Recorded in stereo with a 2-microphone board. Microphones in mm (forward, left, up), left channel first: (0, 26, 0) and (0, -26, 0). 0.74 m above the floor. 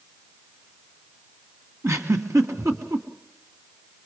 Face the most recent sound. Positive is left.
turn(degrees=-85)